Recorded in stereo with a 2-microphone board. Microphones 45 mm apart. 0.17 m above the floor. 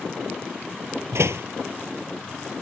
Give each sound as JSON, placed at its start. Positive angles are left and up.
{"t": 1.1, "sound": "a door slam", "side_deg": -70}